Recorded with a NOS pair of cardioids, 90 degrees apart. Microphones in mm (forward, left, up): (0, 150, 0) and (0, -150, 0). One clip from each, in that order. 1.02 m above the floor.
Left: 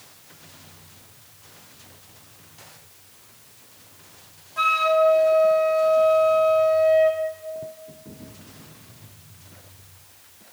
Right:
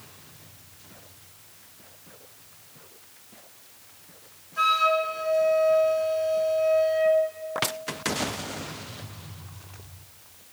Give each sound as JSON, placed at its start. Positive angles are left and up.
{"t": 4.6, "sound": "a flute", "azimuth_deg": 20, "distance_m": 1.9}